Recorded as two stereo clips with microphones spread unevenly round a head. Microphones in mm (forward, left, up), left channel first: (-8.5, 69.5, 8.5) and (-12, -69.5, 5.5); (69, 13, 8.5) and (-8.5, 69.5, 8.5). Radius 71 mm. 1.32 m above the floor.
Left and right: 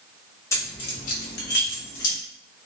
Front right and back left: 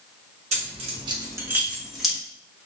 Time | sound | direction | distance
0.5 | keys jangling | 160° left | 0.9 m